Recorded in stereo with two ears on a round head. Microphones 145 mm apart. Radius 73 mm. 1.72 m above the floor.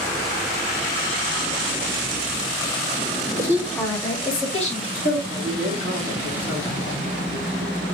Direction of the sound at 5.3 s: 30° left (ahead or behind).